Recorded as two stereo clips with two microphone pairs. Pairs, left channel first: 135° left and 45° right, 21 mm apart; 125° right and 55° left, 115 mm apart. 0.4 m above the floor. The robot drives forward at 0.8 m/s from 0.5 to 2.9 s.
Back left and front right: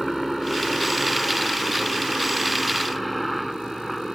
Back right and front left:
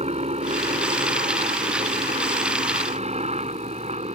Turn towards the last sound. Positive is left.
turn(degrees=50)